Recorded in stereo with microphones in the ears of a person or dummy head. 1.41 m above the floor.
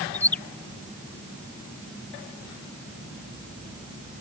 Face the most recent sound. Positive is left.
turn(degrees=15)  # may be behind; listen again after turning